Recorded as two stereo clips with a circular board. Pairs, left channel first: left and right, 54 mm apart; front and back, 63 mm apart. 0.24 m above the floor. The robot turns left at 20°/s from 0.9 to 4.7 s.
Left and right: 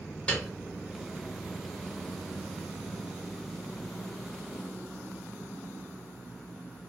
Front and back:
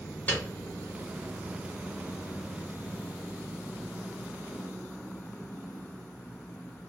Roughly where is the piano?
Ahead left.